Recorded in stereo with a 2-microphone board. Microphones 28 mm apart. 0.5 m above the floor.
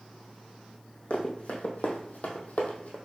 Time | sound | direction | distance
1.1 | running footsteps | 50° left (ahead or behind) | 1.5 m